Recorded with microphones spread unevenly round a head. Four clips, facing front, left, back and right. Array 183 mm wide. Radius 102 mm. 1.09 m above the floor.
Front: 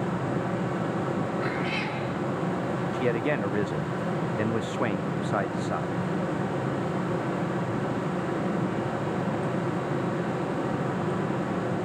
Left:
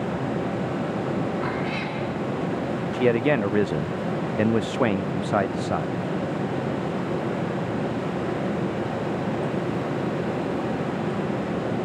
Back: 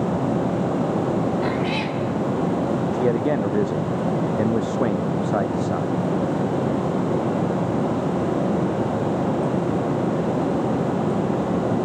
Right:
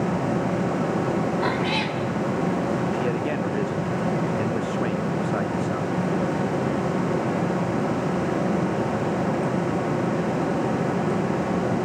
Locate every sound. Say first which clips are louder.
0.0 s a fan: right 3 dB, back 7 dB; 165° right, 1.9 m
1.4 s a cat meowing: right 3 dB, back 6 dB; 160° right, 2.5 m
2.9 s a man speaking: left 4 dB, back 5 dB; 70° left, 0.5 m